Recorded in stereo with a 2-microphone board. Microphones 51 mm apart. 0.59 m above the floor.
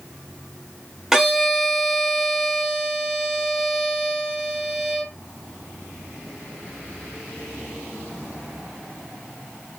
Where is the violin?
5° right (ahead or behind), 0.9 m.